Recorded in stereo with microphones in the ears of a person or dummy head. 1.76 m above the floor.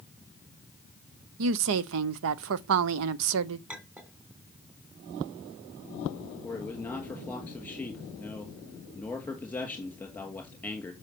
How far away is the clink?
About 3 m.